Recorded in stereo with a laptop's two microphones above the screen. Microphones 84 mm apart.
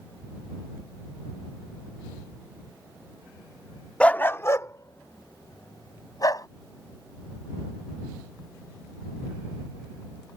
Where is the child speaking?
No child speaking in this recording.